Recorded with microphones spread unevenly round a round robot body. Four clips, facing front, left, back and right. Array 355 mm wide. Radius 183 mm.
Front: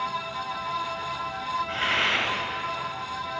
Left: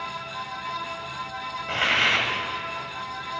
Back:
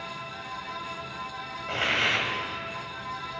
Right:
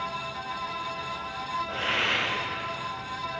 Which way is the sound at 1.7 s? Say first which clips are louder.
Left 4 dB, front 2 dB; 110° left.